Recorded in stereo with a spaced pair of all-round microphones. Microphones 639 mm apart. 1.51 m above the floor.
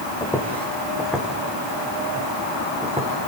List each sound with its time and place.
0.2 s footsteps: 5° left (ahead or behind), 4 m; by 3.1 s 10° right (ahead or behind), 5 m